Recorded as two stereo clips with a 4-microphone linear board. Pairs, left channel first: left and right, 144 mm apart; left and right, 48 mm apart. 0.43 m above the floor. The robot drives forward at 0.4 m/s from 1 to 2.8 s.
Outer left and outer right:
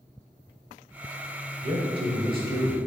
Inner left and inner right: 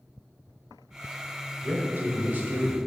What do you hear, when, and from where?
1.6 s a man speaking: 45° right (ahead or behind), 1.3 m; by 2.8 s 35° right (ahead or behind), 1.6 m